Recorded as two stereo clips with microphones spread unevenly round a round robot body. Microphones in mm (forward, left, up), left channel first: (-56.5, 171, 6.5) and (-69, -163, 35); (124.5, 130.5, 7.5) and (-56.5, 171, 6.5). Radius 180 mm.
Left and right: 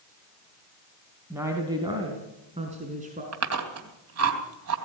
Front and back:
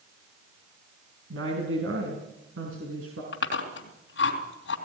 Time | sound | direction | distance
1.3 | a woman speaking | 175° right | 3.5 m
3.3 | chewing | 40° right | 3 m